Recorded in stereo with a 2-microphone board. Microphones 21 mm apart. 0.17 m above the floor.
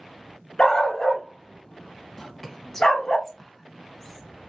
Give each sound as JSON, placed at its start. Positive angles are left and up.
{"t": 0.6, "sound": "a dog barking", "side_deg": 40, "distance_m": 1.0}
{"t": 2.2, "sound": "whispering", "side_deg": 20, "distance_m": 1.0}